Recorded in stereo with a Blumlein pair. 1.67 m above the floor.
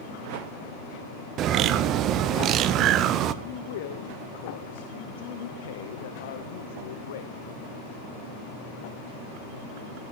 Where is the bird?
35° right, 0.9 m.